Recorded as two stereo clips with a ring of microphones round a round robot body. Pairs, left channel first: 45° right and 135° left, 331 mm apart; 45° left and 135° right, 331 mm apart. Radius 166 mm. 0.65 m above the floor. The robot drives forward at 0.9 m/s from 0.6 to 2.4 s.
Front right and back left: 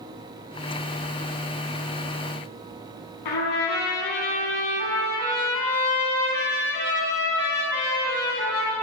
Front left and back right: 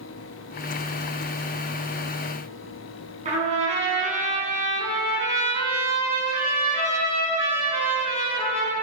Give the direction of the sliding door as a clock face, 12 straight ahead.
I don't hear a sliding door.